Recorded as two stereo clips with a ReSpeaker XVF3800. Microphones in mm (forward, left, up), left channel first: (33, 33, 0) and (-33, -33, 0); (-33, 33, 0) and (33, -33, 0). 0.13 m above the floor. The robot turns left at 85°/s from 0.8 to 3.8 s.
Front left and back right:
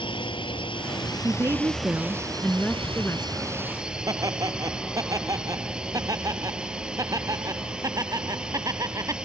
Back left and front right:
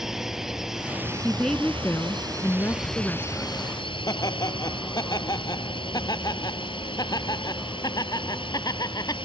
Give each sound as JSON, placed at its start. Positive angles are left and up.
{"t": 0.0, "sound": "a drone", "azimuth_deg": 40}
{"t": 1.2, "sound": "a woman speaking", "azimuth_deg": -125}
{"t": 4.1, "sound": "laughter", "azimuth_deg": 175}